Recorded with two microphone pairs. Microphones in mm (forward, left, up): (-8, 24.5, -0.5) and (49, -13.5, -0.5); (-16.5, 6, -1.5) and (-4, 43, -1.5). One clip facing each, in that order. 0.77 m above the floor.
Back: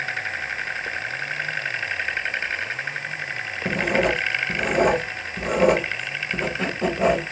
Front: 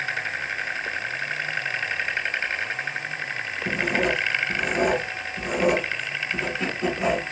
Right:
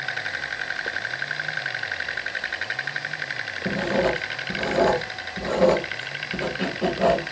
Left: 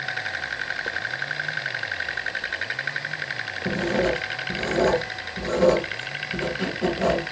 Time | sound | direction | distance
3.6 | writing | 175° right | 1.1 m